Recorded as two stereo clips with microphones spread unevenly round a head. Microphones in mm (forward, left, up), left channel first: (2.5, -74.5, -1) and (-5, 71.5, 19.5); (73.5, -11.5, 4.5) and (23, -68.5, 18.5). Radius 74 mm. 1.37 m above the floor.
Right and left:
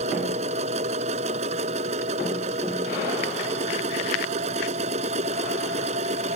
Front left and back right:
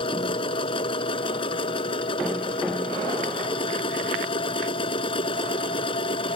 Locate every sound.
0.0 s a machine running: 45° left